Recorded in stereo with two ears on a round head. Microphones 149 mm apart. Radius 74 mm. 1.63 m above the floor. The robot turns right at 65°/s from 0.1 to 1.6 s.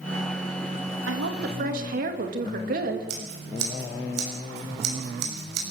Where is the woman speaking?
90° right, 3 m; by 3.1 s 55° right, 3 m.